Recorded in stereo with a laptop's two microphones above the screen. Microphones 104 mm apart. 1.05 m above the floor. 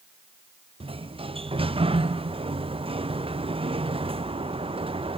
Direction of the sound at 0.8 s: 60° right (ahead or behind).